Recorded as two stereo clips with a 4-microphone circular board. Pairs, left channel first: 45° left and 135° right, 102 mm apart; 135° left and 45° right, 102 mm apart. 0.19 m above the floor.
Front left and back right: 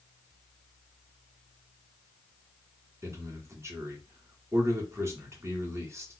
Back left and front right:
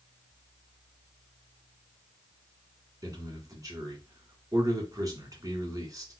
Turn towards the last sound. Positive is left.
turn(degrees=-85)